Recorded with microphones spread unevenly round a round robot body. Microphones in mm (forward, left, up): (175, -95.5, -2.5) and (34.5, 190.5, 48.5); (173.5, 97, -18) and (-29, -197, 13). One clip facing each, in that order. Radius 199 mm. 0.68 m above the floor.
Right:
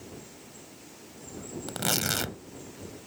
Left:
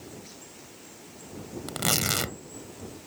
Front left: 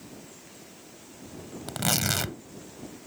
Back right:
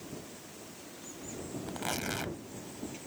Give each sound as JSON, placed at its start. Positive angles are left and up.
{"t": 1.7, "sound": "tearing paper", "azimuth_deg": 35}